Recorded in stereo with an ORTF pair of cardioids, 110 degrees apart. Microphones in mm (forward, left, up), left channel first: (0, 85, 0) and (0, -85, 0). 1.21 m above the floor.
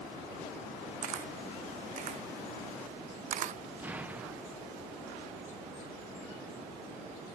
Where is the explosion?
10° right, 0.5 m.